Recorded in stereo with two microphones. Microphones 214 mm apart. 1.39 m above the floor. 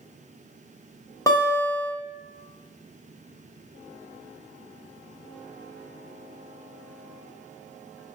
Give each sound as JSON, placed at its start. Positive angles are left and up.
{"t": 1.3, "sound": "a guitar", "side_deg": 15, "distance_m": 0.7}